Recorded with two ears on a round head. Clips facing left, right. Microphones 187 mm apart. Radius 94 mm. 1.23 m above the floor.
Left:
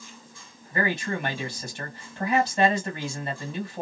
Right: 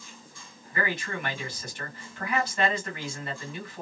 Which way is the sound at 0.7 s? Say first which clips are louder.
Left 4 dB; 25° left (ahead or behind).